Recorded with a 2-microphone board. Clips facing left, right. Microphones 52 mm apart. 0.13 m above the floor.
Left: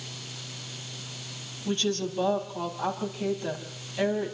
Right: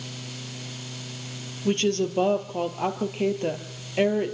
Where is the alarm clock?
No alarm clock in this recording.